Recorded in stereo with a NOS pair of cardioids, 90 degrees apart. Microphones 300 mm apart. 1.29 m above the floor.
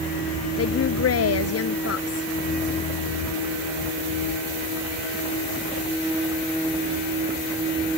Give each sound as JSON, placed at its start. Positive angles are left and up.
{"t": 0.6, "sound": "a woman speaking", "azimuth_deg": 55}